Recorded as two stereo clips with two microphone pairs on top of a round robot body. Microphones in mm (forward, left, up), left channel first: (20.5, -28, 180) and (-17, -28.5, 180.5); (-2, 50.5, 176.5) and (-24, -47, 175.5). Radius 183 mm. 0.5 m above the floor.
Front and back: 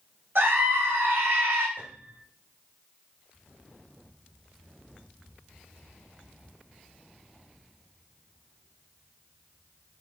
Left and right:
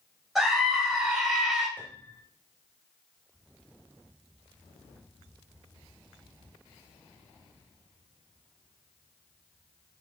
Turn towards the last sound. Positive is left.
turn(degrees=150)